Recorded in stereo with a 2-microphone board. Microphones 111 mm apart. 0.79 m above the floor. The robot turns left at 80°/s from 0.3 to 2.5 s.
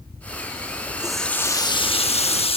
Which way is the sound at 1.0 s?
165° right.